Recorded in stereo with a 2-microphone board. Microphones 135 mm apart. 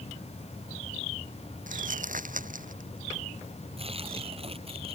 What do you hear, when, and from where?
1.7 s crumpling: 80° right
3.8 s tearing paper: 45° right (ahead or behind)